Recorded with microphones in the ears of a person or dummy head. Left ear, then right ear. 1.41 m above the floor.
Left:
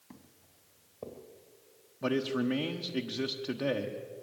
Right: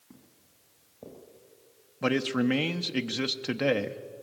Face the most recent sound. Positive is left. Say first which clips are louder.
# right 4 dB
turn(degrees=-50)  # may be behind; listen again after turning